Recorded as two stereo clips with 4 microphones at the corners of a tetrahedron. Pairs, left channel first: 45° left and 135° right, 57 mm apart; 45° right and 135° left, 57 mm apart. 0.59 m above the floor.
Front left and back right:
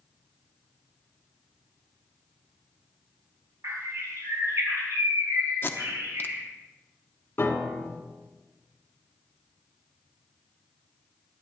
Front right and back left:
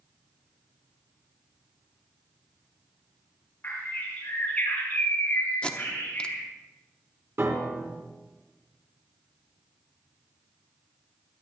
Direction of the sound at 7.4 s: 95° left.